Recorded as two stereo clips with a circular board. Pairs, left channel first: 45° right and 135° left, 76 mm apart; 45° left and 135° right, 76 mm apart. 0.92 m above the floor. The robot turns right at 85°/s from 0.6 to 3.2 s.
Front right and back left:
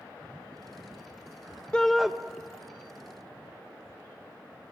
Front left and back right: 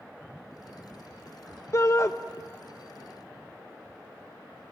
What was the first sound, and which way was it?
A shout, 25° left.